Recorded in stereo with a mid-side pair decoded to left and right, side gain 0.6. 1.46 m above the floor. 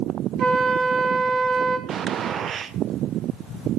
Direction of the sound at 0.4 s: 60° right.